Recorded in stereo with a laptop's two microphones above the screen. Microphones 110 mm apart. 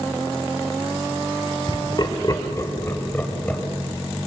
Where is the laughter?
50° left (ahead or behind), 3 m; by 3.6 s 10° left (ahead or behind), 4.5 m.